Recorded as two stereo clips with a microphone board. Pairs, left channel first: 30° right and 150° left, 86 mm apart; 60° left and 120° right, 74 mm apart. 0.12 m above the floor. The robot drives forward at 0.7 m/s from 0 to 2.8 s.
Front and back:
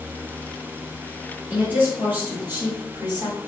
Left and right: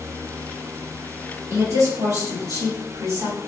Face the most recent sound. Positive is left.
turn(degrees=-155)